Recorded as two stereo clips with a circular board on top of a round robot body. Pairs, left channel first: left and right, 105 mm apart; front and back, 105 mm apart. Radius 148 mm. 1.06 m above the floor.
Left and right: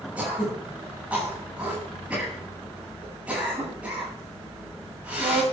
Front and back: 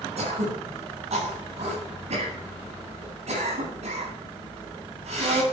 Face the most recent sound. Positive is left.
turn(degrees=-170)